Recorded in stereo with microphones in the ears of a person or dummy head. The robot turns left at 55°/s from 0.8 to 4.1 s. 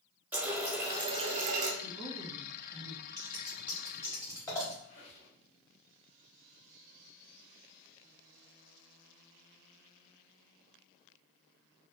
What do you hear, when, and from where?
0.3 s a running tap: 15° right, 0.5 m; by 1.7 s 65° right, 0.5 m
1.8 s a woman speaking: 135° right, 0.9 m; by 3.0 s 155° left, 0.9 m
3.2 s scissors: 30° right (ahead or behind), 1.2 m; by 4.7 s 20° left (ahead or behind), 1.2 m
4.8 s a squeak: 80° left, 1.6 m